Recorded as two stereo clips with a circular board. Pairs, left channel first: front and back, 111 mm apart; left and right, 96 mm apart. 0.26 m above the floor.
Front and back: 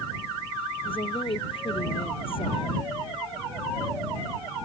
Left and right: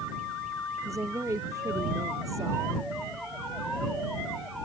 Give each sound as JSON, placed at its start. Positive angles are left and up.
{"t": 0.8, "sound": "a woman speaking", "azimuth_deg": -35}